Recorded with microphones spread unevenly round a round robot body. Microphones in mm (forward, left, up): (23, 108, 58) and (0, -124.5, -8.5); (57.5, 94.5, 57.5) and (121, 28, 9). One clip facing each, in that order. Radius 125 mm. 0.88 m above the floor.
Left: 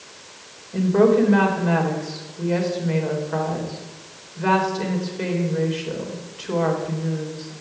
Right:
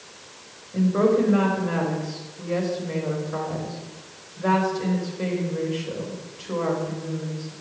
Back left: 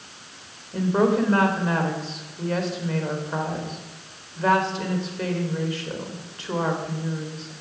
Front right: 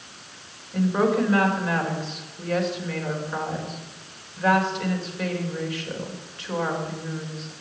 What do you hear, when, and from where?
0.7 s a woman speaking: 75° left, 4 m